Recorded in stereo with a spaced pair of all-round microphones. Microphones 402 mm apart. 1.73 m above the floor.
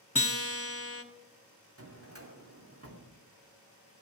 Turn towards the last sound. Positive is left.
turn(degrees=-35)  # may be behind; listen again after turning